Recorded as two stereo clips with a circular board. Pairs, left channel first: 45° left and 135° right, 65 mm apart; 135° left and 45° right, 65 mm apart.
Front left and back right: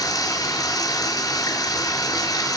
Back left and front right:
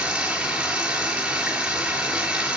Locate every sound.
0.0 s running water: 30° left, 5 m